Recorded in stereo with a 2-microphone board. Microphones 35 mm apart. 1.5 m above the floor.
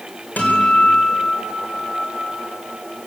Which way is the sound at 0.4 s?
55° left (ahead or behind).